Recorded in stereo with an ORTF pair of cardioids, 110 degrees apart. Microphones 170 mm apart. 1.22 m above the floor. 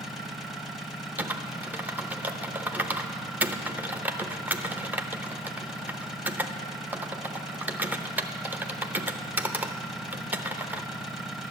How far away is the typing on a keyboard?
About 0.7 m.